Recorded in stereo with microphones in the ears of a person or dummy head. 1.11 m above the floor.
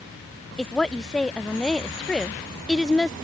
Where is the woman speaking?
Centre (ahead or behind).